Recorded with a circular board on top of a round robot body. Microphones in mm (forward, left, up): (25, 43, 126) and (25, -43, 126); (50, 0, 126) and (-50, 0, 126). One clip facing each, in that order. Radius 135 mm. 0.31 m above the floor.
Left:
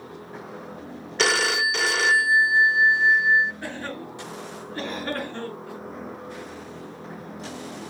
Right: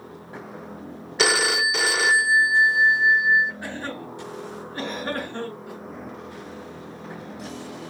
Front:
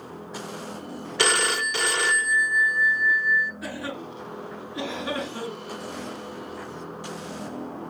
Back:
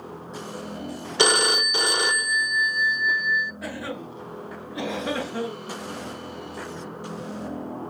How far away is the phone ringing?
About 0.5 m.